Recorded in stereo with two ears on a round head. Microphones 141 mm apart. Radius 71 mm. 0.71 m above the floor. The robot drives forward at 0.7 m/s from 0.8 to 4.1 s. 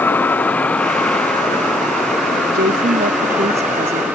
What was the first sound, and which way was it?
A vehicle, 10° left (ahead or behind).